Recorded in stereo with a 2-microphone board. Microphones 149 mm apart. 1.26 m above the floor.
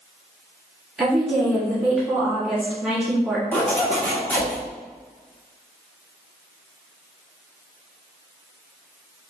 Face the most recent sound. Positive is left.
turn(degrees=10)  # may be behind; listen again after turning